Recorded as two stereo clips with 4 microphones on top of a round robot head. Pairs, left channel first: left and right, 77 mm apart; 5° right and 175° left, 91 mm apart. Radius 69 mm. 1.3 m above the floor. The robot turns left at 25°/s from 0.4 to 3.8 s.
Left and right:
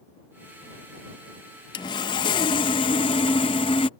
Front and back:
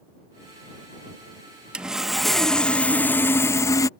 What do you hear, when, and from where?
1.7 s sawing: 100° left; by 3.9 s 45° left